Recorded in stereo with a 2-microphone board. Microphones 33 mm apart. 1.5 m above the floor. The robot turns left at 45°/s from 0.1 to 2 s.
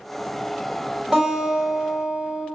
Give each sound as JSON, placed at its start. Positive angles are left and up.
{"t": 1.1, "sound": "a guitar", "azimuth_deg": -20, "distance_m": 1.8}